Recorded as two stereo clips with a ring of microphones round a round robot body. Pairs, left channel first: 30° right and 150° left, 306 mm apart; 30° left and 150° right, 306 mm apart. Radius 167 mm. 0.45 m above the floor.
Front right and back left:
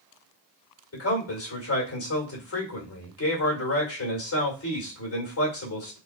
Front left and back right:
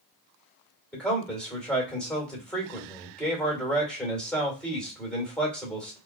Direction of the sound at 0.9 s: 55° right.